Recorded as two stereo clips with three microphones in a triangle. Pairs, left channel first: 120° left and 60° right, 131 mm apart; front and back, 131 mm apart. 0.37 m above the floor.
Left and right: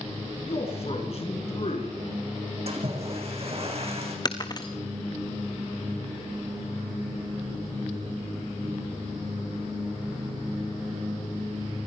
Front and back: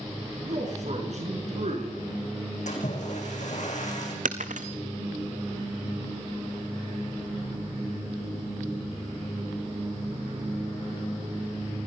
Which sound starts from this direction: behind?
Breaking glass, at 4.2 s.